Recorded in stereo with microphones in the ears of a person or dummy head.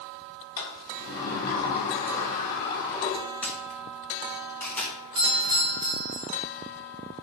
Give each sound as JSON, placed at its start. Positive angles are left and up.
{"t": 0.6, "sound": "a sliding door", "side_deg": 25, "distance_m": 3.0}
{"t": 3.4, "sound": "a camera shutter", "side_deg": 10, "distance_m": 1.7}
{"t": 5.2, "sound": "a doorbell", "side_deg": -25, "distance_m": 2.5}